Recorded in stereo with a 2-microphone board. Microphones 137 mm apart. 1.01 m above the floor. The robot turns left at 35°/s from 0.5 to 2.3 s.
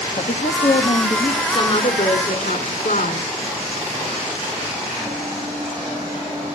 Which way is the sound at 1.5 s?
45° left (ahead or behind).